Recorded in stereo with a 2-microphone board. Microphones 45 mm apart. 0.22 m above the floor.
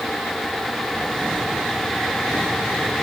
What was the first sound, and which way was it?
Only background noise.